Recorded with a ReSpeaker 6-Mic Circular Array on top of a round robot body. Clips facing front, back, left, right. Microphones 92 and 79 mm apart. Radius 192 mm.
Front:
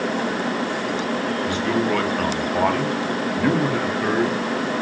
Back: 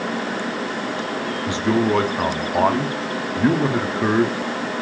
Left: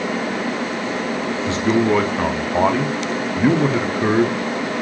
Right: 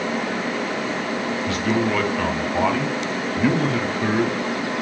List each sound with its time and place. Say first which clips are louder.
1.5 s a man speaking: back 4 dB, left 5 dB; 130° left, 1.0 m